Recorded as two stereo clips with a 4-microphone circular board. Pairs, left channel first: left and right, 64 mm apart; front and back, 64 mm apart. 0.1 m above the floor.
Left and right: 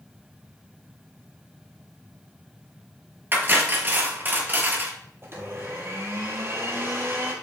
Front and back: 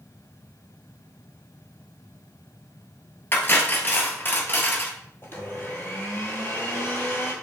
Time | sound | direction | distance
3.3 | cutlery clinking | 45° right | 1.1 m
5.2 | a blender | 50° right | 1.2 m